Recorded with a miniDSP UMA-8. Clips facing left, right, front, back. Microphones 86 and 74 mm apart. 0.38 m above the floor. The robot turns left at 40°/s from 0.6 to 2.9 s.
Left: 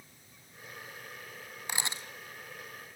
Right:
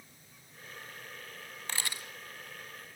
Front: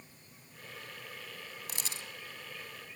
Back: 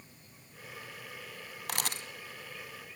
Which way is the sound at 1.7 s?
165° left.